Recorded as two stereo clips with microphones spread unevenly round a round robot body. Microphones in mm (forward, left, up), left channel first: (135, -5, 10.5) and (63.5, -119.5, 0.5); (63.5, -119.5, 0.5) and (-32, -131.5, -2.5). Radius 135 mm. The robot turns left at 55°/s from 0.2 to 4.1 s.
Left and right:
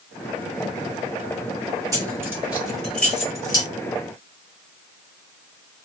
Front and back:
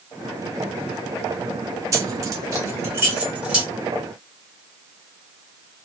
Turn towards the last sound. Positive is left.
turn(degrees=80)